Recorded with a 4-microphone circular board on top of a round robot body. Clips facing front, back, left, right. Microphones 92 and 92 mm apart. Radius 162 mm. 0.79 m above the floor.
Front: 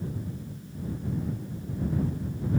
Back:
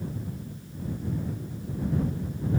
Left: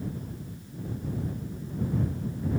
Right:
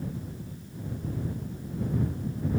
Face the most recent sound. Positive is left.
No sound to turn to.